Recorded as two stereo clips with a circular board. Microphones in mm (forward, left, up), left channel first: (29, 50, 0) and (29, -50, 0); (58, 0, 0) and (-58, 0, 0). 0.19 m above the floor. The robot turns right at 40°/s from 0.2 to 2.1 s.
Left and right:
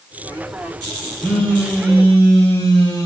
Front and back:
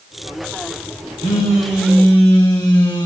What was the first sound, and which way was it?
A phone buzzing, 5° left.